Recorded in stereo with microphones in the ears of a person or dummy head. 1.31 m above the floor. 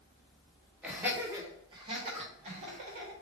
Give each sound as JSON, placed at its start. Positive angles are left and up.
{"t": 0.8, "sound": "laughter", "side_deg": -5, "distance_m": 1.4}